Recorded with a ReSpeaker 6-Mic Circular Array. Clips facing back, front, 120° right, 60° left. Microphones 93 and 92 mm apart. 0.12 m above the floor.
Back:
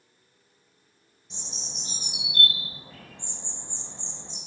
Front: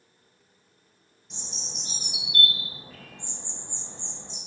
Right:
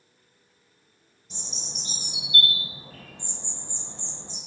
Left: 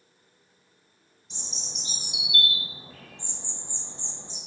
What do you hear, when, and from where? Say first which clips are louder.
1.3 s a bird: front 1 dB, right 2 dB; 90° right, 2.5 m